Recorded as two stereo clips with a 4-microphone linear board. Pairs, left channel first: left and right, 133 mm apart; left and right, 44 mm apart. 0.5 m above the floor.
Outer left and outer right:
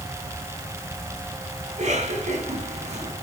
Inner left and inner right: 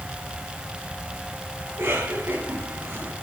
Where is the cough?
60° right (ahead or behind), 5 m.